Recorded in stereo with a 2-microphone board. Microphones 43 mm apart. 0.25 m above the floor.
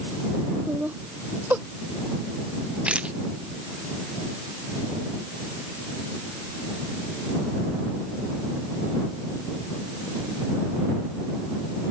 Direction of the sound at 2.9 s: 30° right (ahead or behind).